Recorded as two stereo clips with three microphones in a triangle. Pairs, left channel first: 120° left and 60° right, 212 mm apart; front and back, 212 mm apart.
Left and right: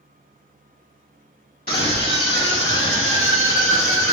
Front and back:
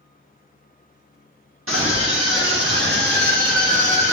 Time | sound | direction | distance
1.7 | a scream | 165° left | 1.6 m